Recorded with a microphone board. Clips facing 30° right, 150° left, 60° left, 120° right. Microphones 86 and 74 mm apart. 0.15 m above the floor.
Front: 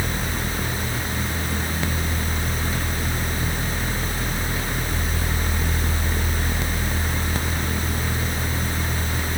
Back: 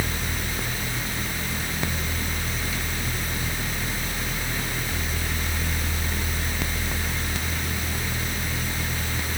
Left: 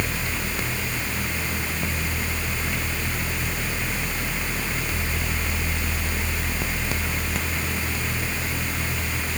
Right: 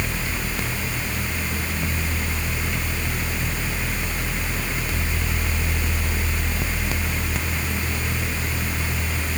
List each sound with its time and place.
Only background noise.